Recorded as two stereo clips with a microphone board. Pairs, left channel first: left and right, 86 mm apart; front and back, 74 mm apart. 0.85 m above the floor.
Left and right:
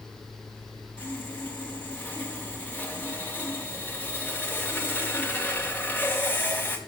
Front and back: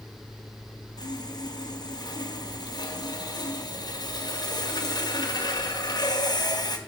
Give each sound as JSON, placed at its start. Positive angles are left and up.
{"t": 1.0, "sound": "sawing", "azimuth_deg": 20, "distance_m": 1.9}